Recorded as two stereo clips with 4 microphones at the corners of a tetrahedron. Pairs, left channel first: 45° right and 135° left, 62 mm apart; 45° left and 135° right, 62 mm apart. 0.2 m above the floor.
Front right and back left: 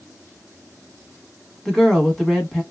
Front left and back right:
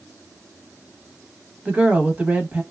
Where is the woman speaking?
125° right, 1.1 m.